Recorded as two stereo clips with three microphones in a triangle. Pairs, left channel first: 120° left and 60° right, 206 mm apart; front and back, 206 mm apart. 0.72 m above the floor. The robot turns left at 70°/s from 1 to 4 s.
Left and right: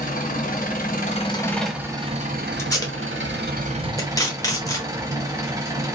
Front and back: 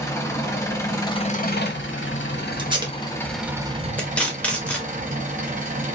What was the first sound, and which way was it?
An engine running, 75° left.